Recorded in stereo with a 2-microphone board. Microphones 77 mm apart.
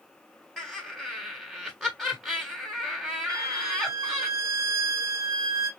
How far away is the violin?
About 1.4 m.